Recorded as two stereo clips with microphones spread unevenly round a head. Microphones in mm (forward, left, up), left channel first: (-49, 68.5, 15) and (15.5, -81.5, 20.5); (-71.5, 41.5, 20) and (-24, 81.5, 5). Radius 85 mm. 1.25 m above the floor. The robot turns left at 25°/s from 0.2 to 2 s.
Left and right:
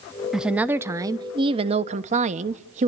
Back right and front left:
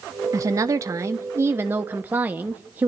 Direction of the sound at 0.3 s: 20° left.